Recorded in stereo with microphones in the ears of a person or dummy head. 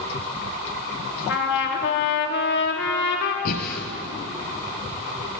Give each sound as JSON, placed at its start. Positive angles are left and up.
{"t": 1.3, "sound": "a trumpet", "side_deg": 60, "distance_m": 3.0}
{"t": 3.5, "sound": "breathing", "side_deg": 55, "distance_m": 3.5}